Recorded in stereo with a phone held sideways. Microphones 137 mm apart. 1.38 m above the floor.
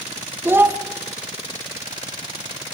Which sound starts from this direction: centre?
A child speaking, at 0.5 s.